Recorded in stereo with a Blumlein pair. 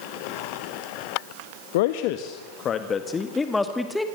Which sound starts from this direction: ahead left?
A man speaking, at 1.7 s.